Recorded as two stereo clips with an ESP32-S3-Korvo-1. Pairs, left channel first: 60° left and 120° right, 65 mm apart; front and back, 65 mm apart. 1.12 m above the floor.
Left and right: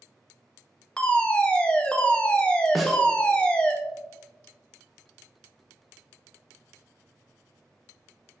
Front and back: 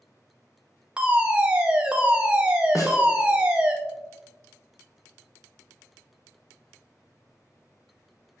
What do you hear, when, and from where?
1.0 s a fire alarm: 120° left, 1.1 m
2.8 s a snare drum: 30° right, 1.1 m